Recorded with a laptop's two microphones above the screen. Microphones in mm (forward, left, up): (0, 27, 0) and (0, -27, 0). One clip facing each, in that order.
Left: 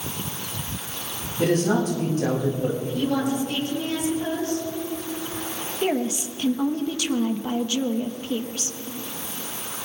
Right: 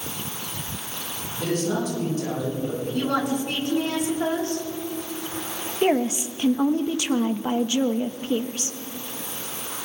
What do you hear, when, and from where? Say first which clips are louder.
1.4 s a man speaking: left 4 dB; 50° left (ahead or behind), 6 m
2.9 s a woman speaking: right 2 dB; 75° right (ahead or behind), 6 m
5.8 s a woman speaking: right 3 dB; 25° right (ahead or behind), 0.9 m